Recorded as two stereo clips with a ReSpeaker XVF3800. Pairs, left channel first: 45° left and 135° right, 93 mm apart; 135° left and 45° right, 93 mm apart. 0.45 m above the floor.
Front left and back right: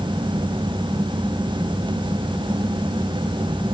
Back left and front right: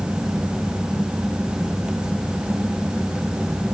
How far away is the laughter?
No laughter in this recording.